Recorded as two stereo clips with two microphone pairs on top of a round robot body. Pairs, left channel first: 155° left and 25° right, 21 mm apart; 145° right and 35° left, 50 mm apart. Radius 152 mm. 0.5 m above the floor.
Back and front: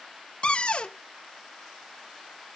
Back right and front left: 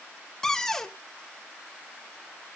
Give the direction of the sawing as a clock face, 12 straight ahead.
I don't hear sawing.